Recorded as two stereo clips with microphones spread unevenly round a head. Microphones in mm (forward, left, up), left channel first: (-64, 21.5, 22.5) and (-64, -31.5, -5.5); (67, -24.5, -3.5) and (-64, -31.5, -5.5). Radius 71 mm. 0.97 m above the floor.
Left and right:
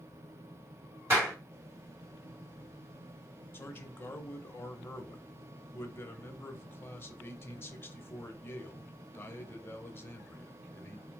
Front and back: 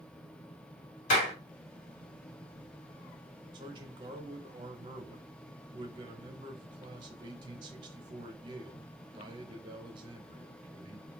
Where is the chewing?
I don't hear chewing.